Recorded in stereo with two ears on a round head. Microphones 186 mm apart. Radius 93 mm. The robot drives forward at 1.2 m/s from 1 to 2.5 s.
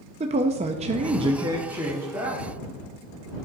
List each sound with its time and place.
0.2 s a woman speaking: 30° right (ahead or behind), 0.5 m; by 2.5 s 10° right (ahead or behind), 2.0 m